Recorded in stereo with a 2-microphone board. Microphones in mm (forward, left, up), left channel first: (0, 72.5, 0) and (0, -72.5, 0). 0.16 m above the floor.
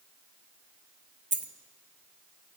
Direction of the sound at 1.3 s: 60° right (ahead or behind).